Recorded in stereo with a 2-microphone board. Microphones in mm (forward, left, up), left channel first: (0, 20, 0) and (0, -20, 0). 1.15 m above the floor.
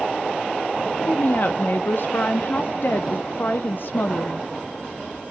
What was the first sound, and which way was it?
A woman speaking, 55° left (ahead or behind).